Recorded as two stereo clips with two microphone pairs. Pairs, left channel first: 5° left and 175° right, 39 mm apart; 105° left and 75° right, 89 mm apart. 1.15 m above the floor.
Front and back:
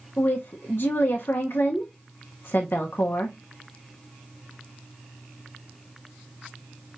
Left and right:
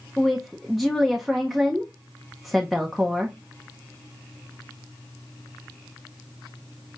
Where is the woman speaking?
10° left, 0.6 m.